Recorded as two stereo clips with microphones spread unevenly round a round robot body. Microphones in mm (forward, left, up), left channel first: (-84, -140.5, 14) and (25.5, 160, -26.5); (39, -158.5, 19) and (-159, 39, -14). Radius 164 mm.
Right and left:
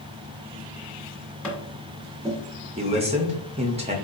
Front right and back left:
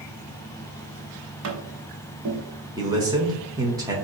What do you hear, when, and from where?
1.4 s tapping: 160° left, 1.2 m
2.8 s a man speaking: 90° left, 0.8 m